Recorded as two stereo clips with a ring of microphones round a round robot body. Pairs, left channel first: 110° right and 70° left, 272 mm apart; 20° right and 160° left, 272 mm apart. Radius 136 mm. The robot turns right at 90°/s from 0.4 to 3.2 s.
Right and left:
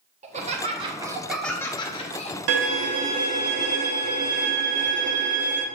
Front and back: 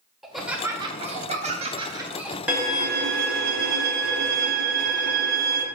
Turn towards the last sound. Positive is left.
turn(degrees=140)